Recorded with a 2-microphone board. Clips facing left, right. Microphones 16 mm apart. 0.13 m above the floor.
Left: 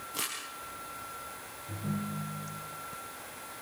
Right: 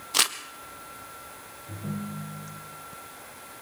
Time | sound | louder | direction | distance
0.1 | crumpling | right 13 dB | 65° right (ahead or behind) | 1.7 m
1.7 | a ringtone | right 1 dB | 25° right (ahead or behind) | 7 m